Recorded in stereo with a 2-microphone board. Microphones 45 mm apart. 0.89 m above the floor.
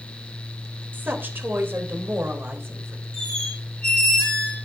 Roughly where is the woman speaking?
Right.